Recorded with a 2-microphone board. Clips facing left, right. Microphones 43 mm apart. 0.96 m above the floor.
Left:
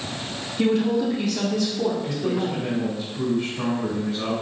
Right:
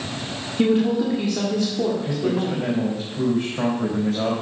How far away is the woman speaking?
About 1.9 m.